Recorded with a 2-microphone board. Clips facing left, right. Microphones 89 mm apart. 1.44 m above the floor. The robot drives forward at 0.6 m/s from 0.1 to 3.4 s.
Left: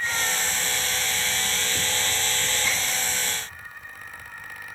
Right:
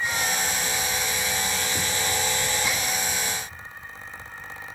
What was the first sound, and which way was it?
Only background noise.